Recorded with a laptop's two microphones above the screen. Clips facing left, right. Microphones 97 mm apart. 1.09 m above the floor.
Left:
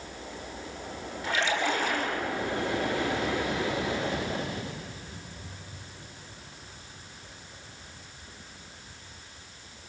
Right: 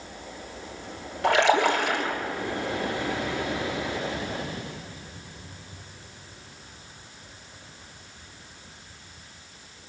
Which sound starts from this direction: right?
A splash, at 1.2 s.